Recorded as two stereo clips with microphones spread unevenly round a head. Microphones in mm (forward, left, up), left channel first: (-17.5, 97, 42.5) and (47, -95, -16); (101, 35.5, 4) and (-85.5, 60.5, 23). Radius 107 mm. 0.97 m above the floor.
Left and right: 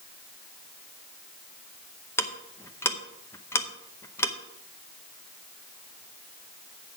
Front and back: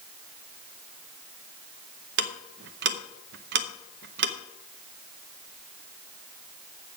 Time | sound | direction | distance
2.2 | ticking | 165° right | 0.7 m